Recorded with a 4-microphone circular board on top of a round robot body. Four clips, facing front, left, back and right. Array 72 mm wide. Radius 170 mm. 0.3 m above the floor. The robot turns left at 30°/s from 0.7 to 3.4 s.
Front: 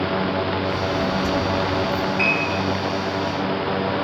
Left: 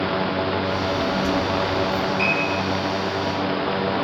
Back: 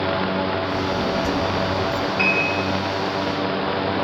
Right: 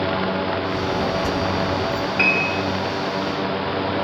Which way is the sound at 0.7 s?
70° right.